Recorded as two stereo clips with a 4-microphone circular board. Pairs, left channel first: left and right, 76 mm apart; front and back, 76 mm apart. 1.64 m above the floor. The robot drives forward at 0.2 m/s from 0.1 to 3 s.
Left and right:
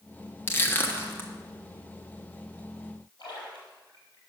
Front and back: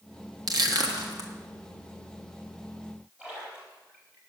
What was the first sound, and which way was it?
Crushing, 150° left.